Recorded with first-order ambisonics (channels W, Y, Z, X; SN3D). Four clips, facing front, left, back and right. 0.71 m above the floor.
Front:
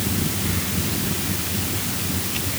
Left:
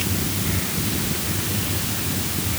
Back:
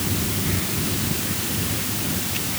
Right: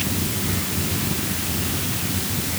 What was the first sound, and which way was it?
Only background noise.